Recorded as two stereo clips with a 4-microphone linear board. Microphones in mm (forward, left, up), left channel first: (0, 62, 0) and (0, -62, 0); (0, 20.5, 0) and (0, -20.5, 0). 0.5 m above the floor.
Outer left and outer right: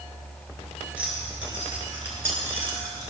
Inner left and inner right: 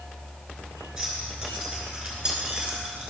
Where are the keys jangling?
10° right (ahead or behind), 5 m; by 3.1 s 20° right (ahead or behind), 4.5 m.